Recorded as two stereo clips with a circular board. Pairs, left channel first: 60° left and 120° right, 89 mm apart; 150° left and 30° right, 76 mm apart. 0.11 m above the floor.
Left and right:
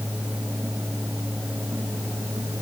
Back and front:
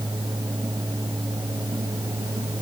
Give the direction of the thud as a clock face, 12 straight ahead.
No thud in this recording.